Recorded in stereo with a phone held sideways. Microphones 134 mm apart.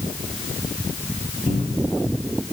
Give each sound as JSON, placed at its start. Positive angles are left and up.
{"t": 1.5, "sound": "a cupboard door", "side_deg": 40, "distance_m": 2.5}